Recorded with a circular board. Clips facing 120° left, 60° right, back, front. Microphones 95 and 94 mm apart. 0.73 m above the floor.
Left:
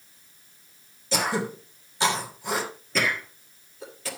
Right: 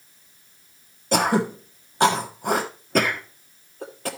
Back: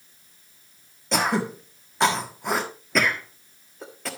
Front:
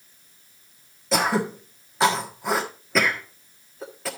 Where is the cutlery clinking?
I don't hear cutlery clinking.